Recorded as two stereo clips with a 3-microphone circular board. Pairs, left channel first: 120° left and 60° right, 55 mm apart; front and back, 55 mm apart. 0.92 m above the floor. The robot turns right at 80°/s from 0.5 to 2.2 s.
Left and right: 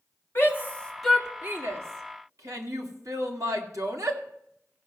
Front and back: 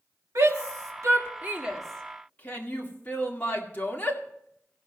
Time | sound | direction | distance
0.3 | a shout | 165° left | 2.0 m